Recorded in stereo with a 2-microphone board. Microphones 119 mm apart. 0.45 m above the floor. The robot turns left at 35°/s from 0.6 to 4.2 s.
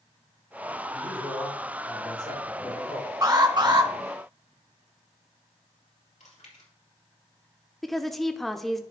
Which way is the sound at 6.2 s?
90° left.